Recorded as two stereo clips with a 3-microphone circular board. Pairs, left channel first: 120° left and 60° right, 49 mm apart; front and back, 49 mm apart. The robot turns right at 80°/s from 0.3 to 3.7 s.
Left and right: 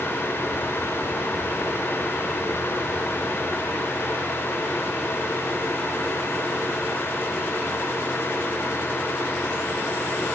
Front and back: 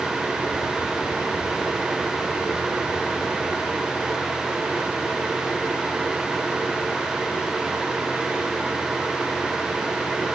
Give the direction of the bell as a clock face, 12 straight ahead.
I don't hear a bell.